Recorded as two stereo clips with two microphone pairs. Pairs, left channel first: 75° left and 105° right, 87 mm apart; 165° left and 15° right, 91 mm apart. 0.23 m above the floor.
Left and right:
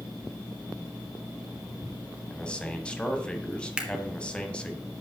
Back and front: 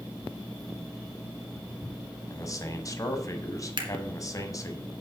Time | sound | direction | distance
2.3 | a man speaking | 150° left | 1.3 m
3.8 | a camera shutter | 25° right | 1.6 m